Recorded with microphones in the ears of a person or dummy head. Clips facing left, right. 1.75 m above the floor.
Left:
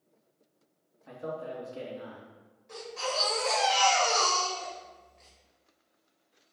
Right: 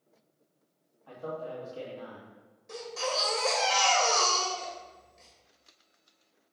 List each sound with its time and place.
1.1 s a man speaking: 30° left (ahead or behind), 2 m
2.7 s a baby crying: 45° right (ahead or behind), 2 m